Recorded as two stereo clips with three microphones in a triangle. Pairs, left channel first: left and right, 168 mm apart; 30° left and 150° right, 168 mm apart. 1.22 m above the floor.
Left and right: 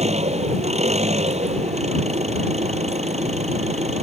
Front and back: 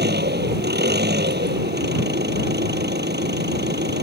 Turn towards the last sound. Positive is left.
turn(degrees=-140)